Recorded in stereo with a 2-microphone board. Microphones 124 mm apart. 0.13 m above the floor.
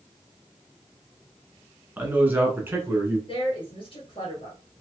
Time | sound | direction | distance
2.0 | a man speaking | 15° right (ahead or behind) | 1.1 m
3.3 | a woman speaking | 45° left (ahead or behind) | 1.9 m